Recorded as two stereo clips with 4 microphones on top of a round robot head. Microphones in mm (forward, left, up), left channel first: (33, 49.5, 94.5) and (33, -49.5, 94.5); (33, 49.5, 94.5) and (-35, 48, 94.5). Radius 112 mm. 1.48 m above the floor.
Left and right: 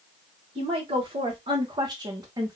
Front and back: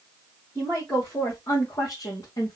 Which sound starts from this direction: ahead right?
A woman speaking, at 0.6 s.